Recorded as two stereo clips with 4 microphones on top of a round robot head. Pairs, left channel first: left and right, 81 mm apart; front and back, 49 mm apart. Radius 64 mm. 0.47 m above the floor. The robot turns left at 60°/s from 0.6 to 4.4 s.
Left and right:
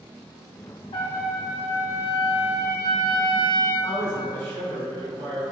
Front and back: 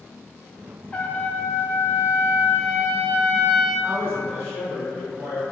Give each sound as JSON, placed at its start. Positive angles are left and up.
{"t": 0.9, "sound": "a trumpet", "azimuth_deg": 75, "distance_m": 0.8}
{"t": 3.8, "sound": "a man speaking", "azimuth_deg": -45, "distance_m": 1.9}